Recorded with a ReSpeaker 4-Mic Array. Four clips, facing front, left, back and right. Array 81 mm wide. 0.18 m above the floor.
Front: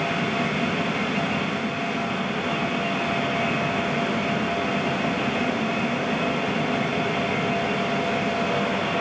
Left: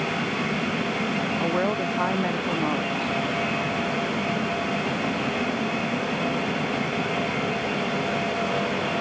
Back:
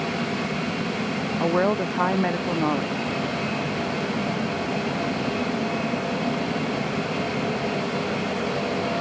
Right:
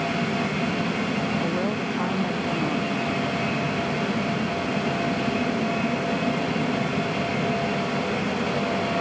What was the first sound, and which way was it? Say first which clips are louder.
A woman speaking: left 2 dB, back 5 dB; 165° left.